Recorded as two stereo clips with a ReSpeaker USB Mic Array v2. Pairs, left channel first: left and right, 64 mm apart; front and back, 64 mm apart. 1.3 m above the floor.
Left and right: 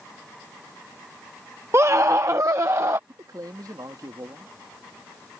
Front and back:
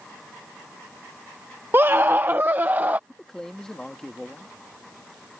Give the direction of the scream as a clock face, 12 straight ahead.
4 o'clock.